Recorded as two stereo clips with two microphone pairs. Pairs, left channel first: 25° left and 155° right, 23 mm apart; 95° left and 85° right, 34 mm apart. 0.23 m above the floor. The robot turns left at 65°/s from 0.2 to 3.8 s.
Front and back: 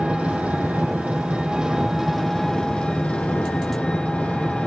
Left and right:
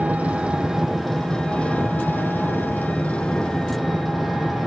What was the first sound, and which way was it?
An engine running, 125° right.